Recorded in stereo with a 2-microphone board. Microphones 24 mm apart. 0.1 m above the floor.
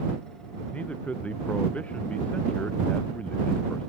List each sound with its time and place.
0.7 s a man speaking: 70° left (ahead or behind)